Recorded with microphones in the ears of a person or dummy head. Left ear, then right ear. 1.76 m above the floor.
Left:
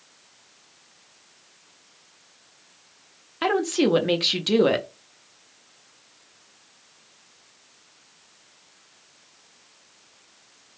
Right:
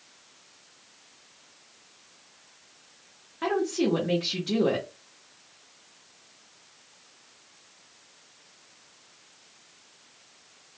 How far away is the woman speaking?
About 0.5 m.